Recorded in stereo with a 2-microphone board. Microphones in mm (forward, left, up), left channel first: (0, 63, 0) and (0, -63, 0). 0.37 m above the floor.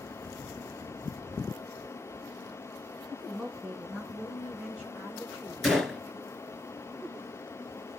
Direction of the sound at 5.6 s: Centre (ahead or behind).